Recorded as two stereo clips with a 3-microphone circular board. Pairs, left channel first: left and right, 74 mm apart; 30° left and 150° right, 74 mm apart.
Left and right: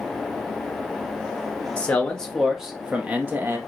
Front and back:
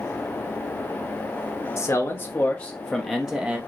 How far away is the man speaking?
About 1.1 m.